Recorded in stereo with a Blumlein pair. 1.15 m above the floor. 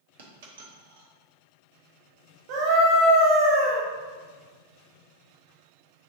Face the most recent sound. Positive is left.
turn(degrees=-45)